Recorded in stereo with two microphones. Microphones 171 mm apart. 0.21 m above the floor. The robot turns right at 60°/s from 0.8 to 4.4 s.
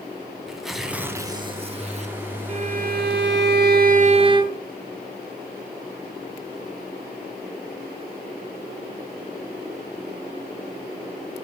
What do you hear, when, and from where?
0.5 s tearing paper: straight behind, 1.3 m; by 2.1 s 95° right, 1.3 m
2.5 s a violin: 140° right, 0.9 m; by 4.6 s 25° right, 0.9 m